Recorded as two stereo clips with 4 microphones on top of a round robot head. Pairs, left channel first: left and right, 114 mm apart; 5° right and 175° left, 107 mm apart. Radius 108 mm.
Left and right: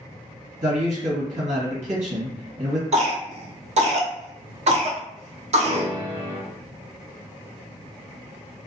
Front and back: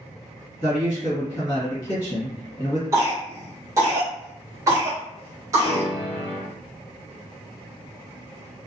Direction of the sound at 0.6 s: 65° right.